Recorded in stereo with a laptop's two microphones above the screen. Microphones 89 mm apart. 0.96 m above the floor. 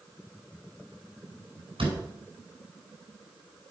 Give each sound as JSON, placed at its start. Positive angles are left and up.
{"t": 1.8, "sound": "a door slam", "side_deg": -90, "distance_m": 6.0}